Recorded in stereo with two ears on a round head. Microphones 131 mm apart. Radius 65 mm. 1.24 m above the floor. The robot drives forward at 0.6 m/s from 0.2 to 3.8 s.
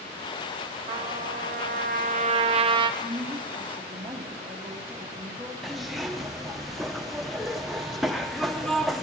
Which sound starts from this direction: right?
A trumpet, at 0.9 s.